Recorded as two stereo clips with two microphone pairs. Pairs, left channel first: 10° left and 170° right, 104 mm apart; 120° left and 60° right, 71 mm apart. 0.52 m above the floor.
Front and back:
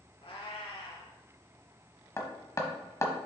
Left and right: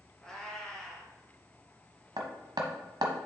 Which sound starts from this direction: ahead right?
Hammering, at 2.2 s.